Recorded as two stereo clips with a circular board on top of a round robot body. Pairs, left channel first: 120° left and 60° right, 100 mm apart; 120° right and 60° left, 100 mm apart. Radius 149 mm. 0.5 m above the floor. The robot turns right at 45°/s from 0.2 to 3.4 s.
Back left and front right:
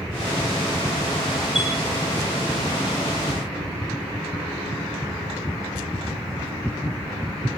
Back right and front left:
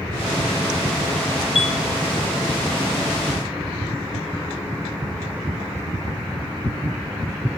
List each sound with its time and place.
1.6 s a chime: 145° right, 3 m; by 1.7 s 135° right, 3 m